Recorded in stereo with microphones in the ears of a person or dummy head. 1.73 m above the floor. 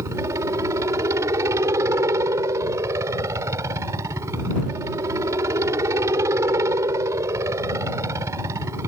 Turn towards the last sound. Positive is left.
turn(degrees=-15)  # may be behind; listen again after turning